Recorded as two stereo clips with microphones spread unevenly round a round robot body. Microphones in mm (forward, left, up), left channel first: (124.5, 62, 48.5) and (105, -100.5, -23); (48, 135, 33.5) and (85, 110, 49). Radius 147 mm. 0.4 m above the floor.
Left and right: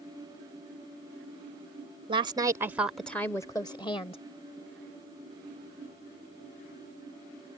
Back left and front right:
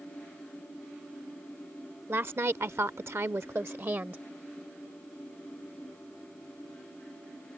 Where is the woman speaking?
85° right; by 4.2 s 15° left.